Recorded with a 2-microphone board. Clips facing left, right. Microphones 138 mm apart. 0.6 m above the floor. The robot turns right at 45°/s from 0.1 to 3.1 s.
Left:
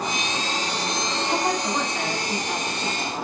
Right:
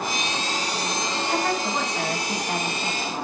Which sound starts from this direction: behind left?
A woman speaking, at 1.3 s.